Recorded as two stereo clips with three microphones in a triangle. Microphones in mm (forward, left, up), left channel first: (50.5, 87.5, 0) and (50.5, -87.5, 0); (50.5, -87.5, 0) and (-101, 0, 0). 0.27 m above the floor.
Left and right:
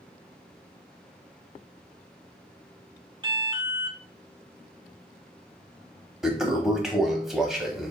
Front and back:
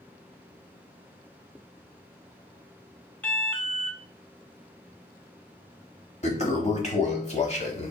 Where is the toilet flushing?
5° right, 0.8 m.